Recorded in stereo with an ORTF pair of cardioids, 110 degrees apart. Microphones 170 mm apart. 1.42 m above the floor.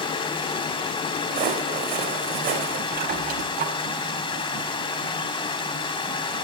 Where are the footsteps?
60° right, 5 m.